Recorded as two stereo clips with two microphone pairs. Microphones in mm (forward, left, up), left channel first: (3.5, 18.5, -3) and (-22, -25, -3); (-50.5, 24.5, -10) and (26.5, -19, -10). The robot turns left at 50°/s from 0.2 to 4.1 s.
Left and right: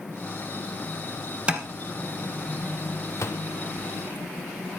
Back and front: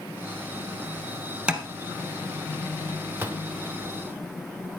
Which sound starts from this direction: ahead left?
A gunshot, at 3.1 s.